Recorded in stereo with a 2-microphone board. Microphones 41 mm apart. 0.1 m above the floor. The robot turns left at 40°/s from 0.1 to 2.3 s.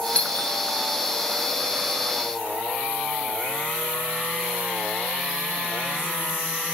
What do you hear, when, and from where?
0.1 s a doorbell: 35° left (ahead or behind), 1.9 m